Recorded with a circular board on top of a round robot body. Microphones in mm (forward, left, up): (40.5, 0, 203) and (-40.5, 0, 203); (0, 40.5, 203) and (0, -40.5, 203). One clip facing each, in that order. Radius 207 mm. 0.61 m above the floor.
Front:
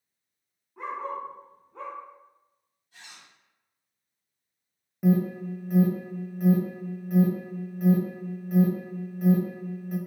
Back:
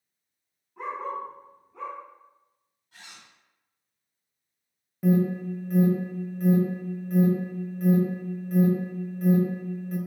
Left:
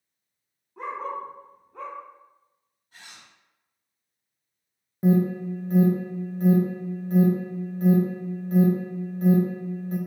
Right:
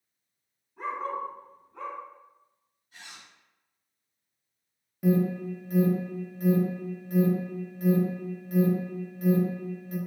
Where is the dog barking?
80° left, 0.9 m; by 2.0 s 45° left, 1.3 m.